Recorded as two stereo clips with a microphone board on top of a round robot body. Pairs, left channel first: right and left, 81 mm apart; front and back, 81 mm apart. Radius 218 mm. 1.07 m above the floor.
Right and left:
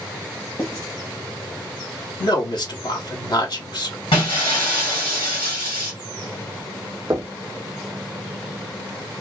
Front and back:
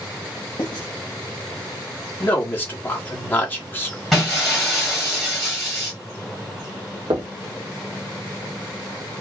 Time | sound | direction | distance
0.6 | writing | 30° right | 1.3 m
2.2 | a man speaking | 65° right | 1.3 m
4.1 | breaking glass | 90° right | 1.6 m
7.1 | knocking | 145° left | 0.7 m